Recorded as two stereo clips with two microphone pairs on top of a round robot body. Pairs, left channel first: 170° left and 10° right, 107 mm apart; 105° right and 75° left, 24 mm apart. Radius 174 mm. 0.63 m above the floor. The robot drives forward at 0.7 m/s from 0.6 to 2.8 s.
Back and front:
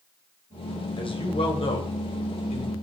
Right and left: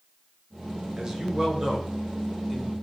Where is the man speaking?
135° left, 2.5 m; by 2.7 s 150° left, 3.5 m.